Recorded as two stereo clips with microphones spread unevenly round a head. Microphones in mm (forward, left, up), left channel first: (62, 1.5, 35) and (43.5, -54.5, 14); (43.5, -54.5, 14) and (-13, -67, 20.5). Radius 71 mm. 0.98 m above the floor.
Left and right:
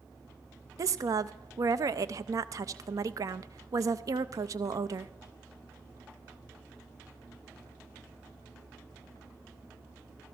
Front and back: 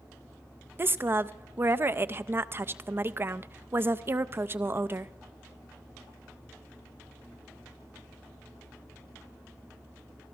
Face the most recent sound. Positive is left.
turn(degrees=-115)